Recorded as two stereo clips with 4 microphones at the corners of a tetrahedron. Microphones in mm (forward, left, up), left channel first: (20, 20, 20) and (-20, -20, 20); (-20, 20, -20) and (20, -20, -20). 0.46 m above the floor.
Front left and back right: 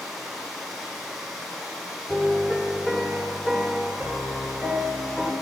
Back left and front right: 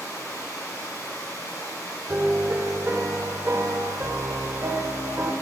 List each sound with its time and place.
0.0 s running water: 130° left, 3 m
2.1 s a piano: 40° right, 1.1 m